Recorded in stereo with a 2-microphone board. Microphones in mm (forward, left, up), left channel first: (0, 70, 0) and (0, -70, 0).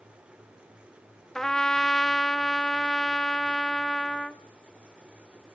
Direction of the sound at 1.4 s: 5° left (ahead or behind).